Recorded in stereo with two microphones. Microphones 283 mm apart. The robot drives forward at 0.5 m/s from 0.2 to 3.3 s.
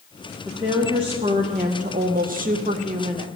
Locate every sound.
0.5 s a woman speaking: 15° right (ahead or behind), 1.0 m; by 3.3 s 20° right (ahead or behind), 0.7 m